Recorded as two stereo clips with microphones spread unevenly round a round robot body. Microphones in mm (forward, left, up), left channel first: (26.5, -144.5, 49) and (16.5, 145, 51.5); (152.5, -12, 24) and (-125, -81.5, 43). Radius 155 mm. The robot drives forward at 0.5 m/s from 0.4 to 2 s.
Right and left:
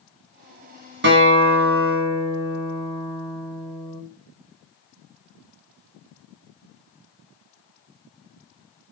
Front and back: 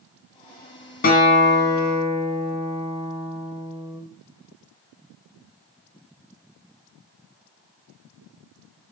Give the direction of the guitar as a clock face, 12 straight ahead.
10 o'clock.